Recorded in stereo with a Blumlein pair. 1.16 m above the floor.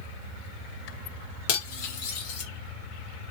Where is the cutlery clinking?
50° left, 1.3 m.